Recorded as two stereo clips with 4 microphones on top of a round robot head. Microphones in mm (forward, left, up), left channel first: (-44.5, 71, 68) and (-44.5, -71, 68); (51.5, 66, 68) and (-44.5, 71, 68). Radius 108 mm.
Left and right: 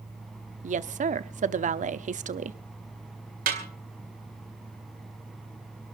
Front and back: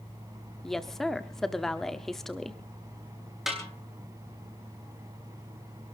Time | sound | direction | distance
0.6 | a woman speaking | 90° right | 1.1 m
3.5 | a snare drum | 95° right | 4 m